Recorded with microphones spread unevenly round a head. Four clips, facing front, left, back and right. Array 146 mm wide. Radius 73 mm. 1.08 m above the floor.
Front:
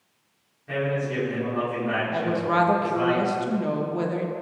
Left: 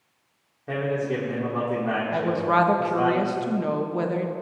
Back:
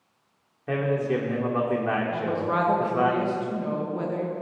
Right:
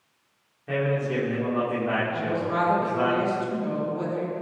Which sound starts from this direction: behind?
A man speaking, at 0.7 s.